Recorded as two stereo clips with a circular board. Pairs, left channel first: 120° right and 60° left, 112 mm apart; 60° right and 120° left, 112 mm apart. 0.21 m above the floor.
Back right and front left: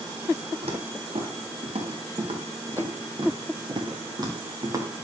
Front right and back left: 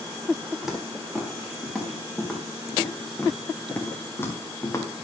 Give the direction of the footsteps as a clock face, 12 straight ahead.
11 o'clock.